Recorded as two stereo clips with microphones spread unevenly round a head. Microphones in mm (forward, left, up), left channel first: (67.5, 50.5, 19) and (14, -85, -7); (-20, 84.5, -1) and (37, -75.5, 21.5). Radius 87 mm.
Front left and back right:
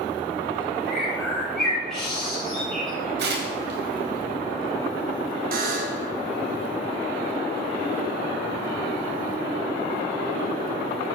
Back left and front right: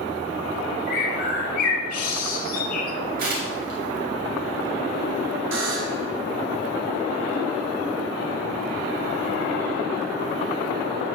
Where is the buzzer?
90° right, 1.5 m.